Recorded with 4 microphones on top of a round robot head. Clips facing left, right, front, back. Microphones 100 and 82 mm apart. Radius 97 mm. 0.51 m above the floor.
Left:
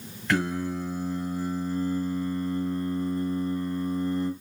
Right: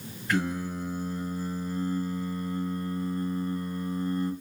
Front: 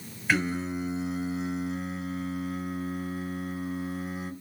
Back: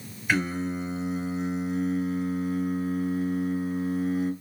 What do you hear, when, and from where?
0.3 s singing: 90° left, 1.7 m